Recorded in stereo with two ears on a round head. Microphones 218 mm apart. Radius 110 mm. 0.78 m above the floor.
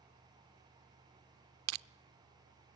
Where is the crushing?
65° right (ahead or behind), 0.6 m.